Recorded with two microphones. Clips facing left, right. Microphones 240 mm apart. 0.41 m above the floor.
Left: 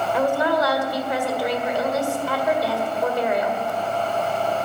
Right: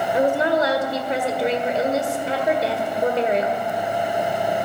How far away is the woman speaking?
About 1.5 m.